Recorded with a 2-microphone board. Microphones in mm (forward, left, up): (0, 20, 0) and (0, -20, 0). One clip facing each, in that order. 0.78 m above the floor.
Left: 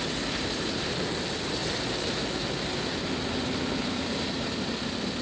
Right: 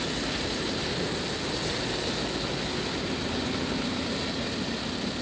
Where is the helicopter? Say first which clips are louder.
Even; centre (ahead or behind); by 5.2 s 5° left (ahead or behind).